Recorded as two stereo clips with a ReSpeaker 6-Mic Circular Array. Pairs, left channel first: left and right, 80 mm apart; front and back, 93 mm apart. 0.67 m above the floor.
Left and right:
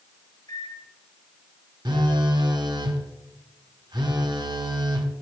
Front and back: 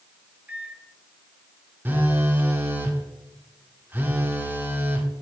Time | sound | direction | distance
0.5 | a microwave | 110° left | 1.6 m
1.9 | a phone buzzing | 115° right | 0.9 m